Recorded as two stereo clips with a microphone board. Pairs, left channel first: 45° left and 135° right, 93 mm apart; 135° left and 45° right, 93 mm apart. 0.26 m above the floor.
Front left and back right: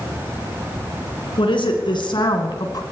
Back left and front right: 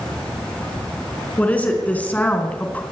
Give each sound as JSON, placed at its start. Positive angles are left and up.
{"t": 1.4, "sound": "a woman speaking", "azimuth_deg": 60, "distance_m": 3.5}